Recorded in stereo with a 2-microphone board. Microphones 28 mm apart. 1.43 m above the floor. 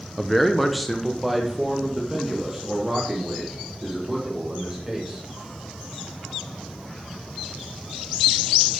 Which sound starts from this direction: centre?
A man speaking, at 0.2 s.